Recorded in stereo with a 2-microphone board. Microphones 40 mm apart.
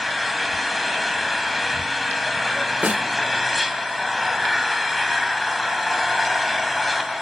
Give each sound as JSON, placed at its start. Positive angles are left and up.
{"t": 0.0, "sound": "an engine running", "side_deg": 0, "distance_m": 2.5}
{"t": 2.8, "sound": "a snare drum", "side_deg": -45, "distance_m": 1.9}